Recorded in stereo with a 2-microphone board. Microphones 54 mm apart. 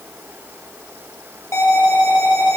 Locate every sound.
1.5 s an alarm: 65° left (ahead or behind), 5 m